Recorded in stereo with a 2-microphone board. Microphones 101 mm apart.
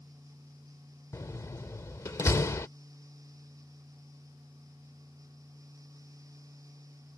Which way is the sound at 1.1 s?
30° left (ahead or behind).